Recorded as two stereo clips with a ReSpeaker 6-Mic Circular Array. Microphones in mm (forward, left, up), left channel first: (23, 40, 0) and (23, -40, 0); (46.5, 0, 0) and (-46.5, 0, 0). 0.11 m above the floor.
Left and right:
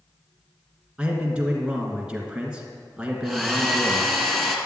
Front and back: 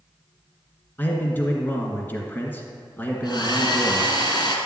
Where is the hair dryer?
5° left, 1.5 m.